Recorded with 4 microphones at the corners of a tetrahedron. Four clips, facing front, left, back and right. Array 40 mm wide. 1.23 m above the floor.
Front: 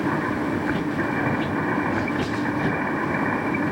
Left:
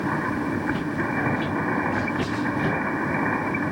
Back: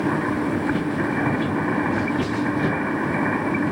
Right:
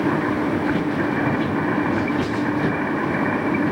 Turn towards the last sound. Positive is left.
turn(degrees=-135)